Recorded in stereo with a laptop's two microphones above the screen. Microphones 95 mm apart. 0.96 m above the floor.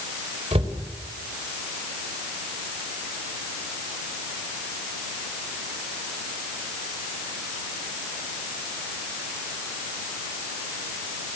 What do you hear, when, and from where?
0.5 s a cupboard door: 85° right, 4 m